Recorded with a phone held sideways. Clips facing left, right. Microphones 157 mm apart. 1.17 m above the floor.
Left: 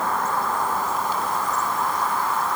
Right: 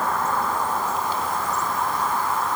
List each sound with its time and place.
Only background noise.